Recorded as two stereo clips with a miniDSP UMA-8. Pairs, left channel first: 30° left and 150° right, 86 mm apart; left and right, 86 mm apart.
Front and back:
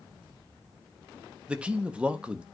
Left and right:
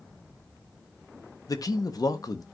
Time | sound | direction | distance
1.5 | a man speaking | 135° left | 1.0 m